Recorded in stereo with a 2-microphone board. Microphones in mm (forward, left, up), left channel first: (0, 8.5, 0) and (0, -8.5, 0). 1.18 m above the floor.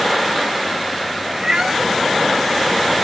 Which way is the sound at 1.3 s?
50° right (ahead or behind).